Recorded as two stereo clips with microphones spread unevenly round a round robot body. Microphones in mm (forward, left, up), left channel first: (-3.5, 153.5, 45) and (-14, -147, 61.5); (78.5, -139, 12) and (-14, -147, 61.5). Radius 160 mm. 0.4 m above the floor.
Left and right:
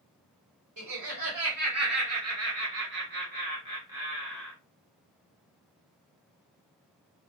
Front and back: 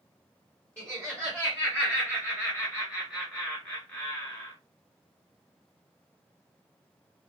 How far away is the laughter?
About 1.8 m.